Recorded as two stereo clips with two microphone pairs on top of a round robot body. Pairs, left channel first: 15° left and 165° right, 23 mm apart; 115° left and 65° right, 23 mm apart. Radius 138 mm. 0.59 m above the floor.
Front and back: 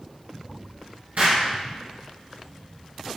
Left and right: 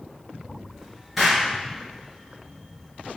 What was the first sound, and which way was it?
An explosion, 150° right.